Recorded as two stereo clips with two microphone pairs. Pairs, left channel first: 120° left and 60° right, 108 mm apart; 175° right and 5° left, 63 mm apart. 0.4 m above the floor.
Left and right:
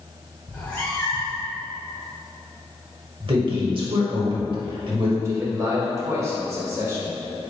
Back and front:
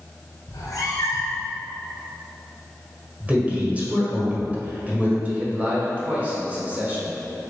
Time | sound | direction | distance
0.5 | a cat meowing | 165° right | 1.4 m
3.2 | a man speaking | 55° right | 1.4 m
5.2 | a man speaking | 35° right | 0.9 m